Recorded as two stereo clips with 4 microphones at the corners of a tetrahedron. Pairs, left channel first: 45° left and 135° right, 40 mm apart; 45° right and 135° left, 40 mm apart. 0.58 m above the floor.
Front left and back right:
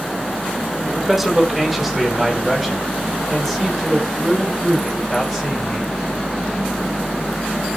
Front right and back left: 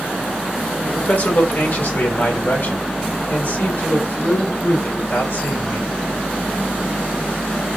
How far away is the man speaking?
About 1.0 m.